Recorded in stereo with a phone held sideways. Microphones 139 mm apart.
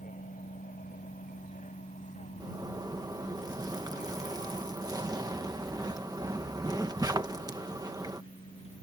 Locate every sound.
0.0 s a vehicle: 80° left; by 8.8 s 45° left (ahead or behind)
2.4 s a zipper: 25° right (ahead or behind)